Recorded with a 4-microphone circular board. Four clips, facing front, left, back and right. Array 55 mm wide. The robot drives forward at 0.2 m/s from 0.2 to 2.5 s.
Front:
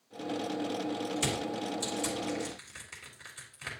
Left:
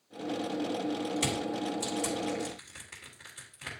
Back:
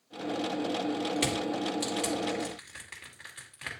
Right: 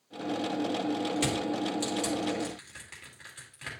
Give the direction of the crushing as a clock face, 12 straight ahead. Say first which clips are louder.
Right 2 dB, back 3 dB; 5 o'clock.